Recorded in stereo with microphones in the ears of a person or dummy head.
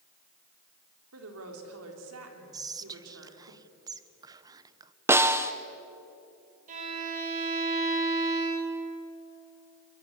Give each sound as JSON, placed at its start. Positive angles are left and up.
{"t": 1.1, "sound": "a woman speaking", "side_deg": -80, "distance_m": 3.5}
{"t": 2.5, "sound": "whispering", "side_deg": -20, "distance_m": 0.7}
{"t": 5.1, "sound": "a snare drum", "side_deg": -10, "distance_m": 0.9}
{"t": 6.7, "sound": "a violin", "side_deg": -45, "distance_m": 4.0}